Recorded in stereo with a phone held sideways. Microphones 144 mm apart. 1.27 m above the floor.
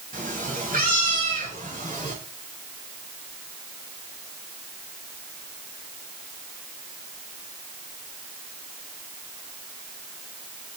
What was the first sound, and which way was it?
A cat meowing, 75° right (ahead or behind).